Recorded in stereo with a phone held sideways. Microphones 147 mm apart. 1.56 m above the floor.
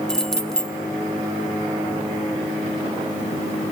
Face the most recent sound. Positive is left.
turn(degrees=5)  # may be behind; listen again after turning